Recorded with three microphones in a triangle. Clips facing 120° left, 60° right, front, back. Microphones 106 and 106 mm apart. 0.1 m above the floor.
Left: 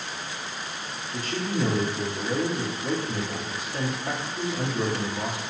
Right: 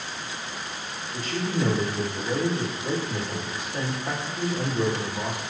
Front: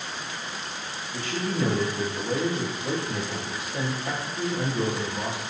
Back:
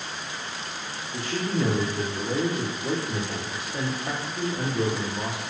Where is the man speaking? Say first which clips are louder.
Right 1 dB, back 1 dB; 115° left, 1.5 m.